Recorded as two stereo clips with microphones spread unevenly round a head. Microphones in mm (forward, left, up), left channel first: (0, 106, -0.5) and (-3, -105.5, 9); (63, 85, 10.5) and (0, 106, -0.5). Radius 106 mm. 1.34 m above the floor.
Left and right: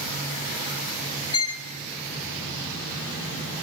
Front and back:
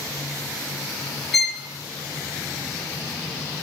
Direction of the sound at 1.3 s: 70° left.